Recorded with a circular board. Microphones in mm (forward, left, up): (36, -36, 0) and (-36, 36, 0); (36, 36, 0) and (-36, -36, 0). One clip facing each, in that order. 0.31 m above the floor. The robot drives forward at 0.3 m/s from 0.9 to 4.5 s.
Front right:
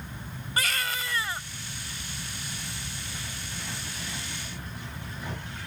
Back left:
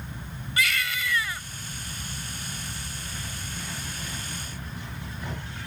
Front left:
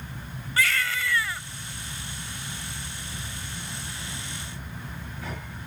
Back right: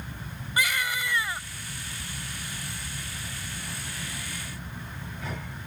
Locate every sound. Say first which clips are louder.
0.6 s a baby crying: back left 2 dB, front left 1 dB; 70° right; by 1.4 s 85° right